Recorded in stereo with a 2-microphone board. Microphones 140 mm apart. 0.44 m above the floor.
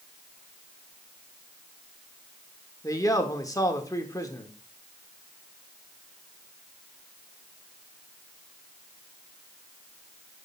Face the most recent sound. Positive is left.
turn(degrees=25)  # may be behind; listen again after turning